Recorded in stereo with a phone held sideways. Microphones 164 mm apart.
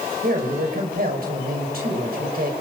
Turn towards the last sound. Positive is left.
turn(degrees=-65)  # may be behind; listen again after turning